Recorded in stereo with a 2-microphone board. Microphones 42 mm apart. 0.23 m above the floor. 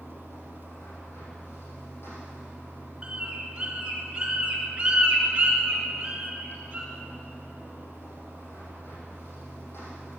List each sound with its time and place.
0.0 s running water: 65° left (ahead or behind), 5.5 m
3.0 s a bird: 20° right (ahead or behind), 2.5 m